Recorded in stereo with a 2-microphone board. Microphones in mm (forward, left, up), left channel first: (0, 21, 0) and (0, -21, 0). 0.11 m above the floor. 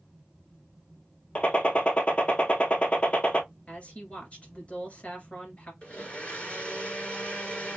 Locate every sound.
1.4 s a gunshot: 35° left (ahead or behind), 0.8 m
3.7 s a woman speaking: 40° left (ahead or behind), 2 m
5.8 s a blender: 35° left (ahead or behind), 1.8 m